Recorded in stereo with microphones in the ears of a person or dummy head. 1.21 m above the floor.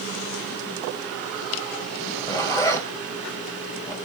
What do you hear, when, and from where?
2.0 s a zipper: 15° left (ahead or behind), 3 m